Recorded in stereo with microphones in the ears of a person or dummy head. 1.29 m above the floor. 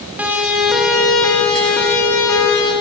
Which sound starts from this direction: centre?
A siren, at 0.2 s.